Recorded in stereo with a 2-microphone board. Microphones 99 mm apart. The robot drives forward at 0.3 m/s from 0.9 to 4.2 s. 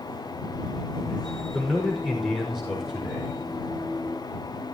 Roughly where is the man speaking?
Centre.